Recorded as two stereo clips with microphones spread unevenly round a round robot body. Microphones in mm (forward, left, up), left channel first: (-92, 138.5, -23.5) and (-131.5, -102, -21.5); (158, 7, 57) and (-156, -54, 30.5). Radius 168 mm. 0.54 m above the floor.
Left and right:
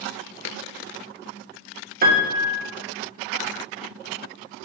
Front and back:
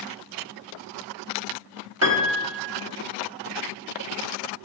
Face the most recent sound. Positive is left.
turn(degrees=-140)